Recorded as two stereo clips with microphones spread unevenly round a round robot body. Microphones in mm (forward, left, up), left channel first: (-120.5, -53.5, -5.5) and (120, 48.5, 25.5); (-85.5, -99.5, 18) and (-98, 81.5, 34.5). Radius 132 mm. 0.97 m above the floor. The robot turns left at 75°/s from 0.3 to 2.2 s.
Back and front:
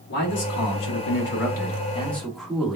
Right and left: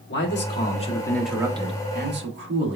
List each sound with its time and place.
0.1 s a man speaking: 105° right, 1.6 m; by 2.8 s 115° left, 1.6 m